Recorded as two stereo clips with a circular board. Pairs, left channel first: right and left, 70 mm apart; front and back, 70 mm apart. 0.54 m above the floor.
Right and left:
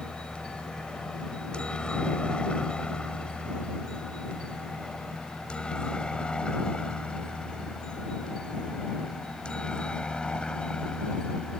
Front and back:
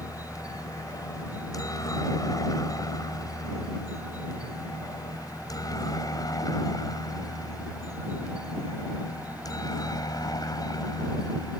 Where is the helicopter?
15° right.